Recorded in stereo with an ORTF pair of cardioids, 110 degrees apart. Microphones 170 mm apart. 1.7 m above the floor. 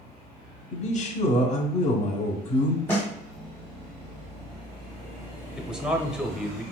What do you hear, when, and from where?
0.7 s a man speaking: 40° left, 0.6 m
2.9 s a snare drum: 10° left, 0.7 m
5.6 s a man speaking: 5° right, 0.6 m